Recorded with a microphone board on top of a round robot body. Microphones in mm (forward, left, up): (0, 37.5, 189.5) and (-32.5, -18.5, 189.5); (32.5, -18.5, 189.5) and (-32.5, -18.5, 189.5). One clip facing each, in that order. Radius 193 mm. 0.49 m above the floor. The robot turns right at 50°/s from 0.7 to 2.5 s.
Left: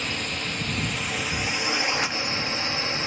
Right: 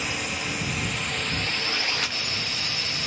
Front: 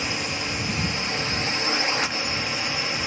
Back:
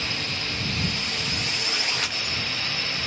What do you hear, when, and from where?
0.0 s a drone: 45° right; by 3.1 s 50° left